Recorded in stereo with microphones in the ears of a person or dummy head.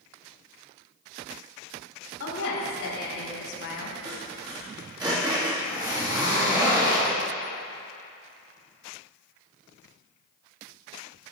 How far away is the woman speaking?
About 2.5 m.